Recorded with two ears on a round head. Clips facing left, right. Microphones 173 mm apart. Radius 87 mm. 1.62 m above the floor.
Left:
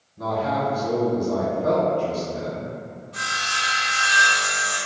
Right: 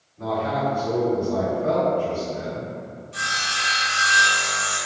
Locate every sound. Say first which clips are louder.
0.2 s a man speaking: even; 40° left (ahead or behind), 1.1 m
3.1 s sawing: even; 55° right (ahead or behind), 1.5 m